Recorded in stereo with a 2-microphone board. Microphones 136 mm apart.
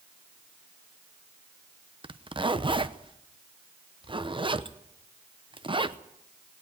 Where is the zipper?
40° right (ahead or behind), 0.8 m.